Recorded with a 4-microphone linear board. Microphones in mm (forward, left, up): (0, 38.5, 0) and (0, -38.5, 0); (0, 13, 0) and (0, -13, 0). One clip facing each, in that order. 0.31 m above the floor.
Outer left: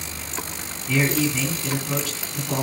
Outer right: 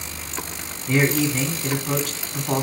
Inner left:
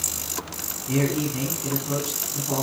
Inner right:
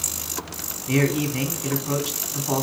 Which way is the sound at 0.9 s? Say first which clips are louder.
Outer right 2 dB, inner right 2 dB; 45° right (ahead or behind).